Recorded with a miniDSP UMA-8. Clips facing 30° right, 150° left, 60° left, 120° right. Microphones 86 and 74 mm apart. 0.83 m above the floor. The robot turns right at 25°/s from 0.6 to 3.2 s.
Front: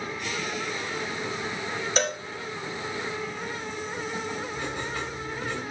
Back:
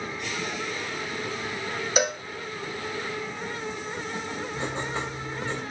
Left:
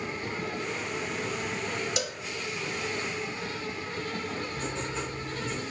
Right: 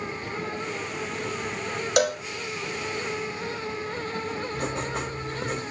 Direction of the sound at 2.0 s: 130° right.